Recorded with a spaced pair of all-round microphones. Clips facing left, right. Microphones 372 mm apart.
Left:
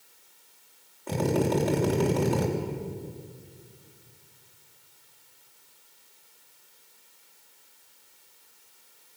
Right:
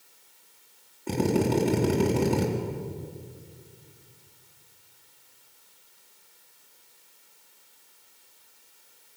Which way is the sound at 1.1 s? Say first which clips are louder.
Right 1 dB; 40° right (ahead or behind).